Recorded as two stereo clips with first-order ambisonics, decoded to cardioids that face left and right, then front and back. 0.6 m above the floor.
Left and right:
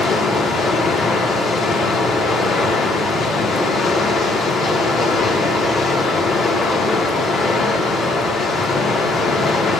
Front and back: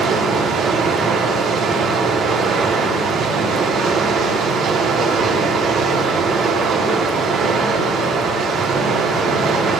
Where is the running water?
145° left, 1.3 m.